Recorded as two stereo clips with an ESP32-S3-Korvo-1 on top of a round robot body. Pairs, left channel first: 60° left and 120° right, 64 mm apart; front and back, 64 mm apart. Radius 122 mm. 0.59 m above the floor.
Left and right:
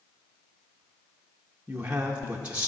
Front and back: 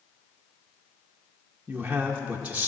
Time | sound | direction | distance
1.7 | a man speaking | 150° right | 1.2 m